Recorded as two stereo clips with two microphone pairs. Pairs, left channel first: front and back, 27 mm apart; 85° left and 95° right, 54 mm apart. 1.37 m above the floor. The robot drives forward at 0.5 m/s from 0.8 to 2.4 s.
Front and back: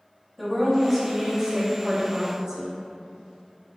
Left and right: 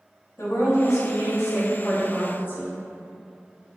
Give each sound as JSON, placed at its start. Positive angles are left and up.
{"t": 0.4, "sound": "a woman speaking", "azimuth_deg": 90, "distance_m": 1.0}